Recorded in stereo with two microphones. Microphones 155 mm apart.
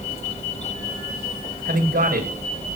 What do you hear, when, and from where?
1.6 s a man speaking: 85° right, 8 m